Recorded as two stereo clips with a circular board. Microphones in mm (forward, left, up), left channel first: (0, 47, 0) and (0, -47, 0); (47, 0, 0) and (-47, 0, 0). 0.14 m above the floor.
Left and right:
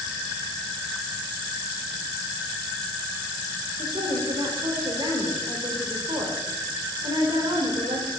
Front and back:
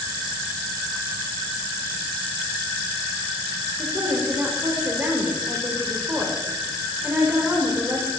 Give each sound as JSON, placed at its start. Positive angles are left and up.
{"t": 3.8, "sound": "a woman speaking", "azimuth_deg": -115, "distance_m": 6.5}